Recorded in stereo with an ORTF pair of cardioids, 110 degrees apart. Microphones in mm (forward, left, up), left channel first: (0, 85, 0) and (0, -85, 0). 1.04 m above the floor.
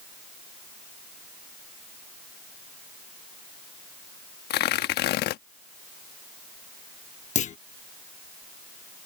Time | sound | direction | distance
4.5 | tearing paper | 65° left | ?
7.3 | a clunk | 45° left | ?